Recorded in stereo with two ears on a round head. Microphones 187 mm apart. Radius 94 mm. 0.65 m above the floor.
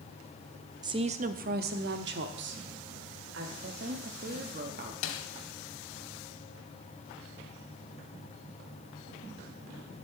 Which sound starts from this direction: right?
A woman speaking, at 3.6 s.